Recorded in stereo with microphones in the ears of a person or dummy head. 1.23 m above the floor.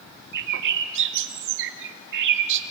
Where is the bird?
65° right (ahead or behind), 1.6 m.